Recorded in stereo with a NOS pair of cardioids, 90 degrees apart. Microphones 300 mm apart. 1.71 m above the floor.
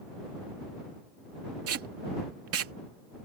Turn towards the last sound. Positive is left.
turn(degrees=-55)